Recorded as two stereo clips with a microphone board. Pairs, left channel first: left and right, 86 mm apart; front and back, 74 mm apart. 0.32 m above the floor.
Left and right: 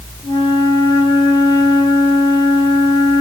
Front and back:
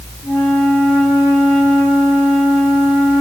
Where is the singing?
I don't hear singing.